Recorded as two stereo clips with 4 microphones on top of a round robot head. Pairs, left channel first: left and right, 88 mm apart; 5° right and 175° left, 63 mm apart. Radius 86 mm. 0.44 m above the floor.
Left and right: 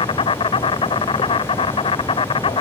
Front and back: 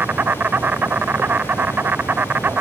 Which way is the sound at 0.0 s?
115° left.